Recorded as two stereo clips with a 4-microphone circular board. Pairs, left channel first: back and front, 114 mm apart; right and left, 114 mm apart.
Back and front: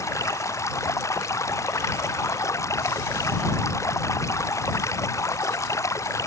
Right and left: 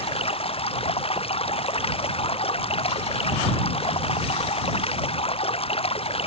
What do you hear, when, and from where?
0.0 s running water: 115° right